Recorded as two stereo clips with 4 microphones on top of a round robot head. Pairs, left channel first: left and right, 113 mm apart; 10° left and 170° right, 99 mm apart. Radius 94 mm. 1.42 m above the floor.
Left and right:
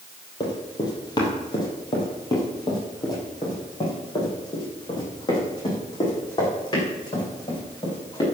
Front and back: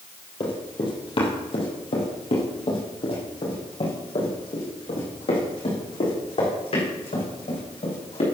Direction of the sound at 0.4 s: 40° left.